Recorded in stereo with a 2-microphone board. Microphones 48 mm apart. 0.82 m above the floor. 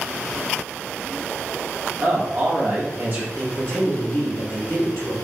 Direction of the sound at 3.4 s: 50° left (ahead or behind).